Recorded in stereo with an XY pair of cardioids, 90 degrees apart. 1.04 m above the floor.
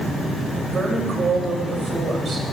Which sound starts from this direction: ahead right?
A woman speaking, at 0.7 s.